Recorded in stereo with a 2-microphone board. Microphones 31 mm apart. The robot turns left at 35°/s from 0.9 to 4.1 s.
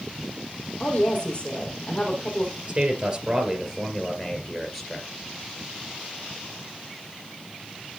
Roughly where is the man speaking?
Behind right.